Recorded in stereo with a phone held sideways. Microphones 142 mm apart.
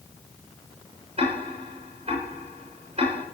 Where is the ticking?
40° right (ahead or behind), 5.5 m.